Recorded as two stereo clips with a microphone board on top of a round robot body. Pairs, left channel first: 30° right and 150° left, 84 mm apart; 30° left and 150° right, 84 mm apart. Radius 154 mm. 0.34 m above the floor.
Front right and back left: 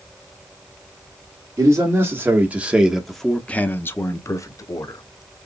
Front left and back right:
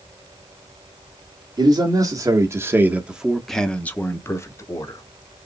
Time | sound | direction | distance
1.6 | a man speaking | 165° right | 1.3 m